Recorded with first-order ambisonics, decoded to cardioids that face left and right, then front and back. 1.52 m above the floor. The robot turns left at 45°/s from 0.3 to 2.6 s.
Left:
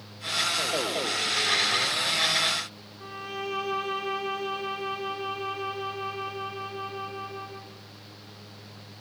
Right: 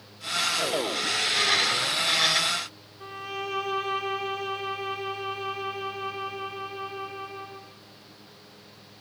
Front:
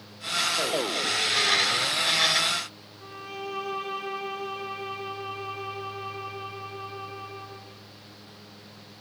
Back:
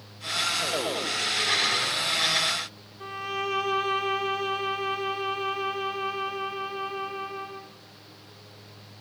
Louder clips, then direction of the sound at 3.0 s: Right 1 dB, back 7 dB; 170° right.